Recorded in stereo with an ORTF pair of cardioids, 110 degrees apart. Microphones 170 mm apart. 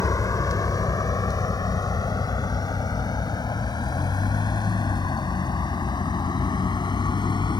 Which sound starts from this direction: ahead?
A vehicle, at 0.0 s.